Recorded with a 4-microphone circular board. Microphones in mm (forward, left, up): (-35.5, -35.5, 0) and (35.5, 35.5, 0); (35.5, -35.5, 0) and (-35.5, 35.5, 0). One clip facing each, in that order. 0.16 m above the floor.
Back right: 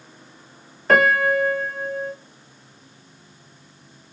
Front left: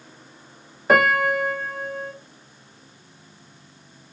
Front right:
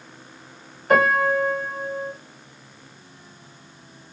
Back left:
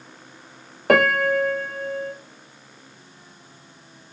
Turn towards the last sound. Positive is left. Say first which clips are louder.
# back right 1 dB, even
turn(degrees=125)